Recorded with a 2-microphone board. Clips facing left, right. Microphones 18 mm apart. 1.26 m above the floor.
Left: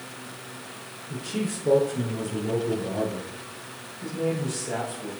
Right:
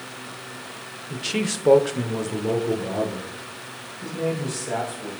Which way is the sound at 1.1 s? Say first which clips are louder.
Right 4 dB; 55° right (ahead or behind).